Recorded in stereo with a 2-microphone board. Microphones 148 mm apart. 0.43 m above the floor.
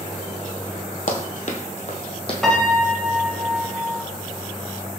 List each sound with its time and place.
1.1 s running footsteps: 60° left (ahead or behind), 0.7 m; by 2.3 s 40° left (ahead or behind), 1.0 m
2.4 s a piano: 5° left (ahead or behind), 0.6 m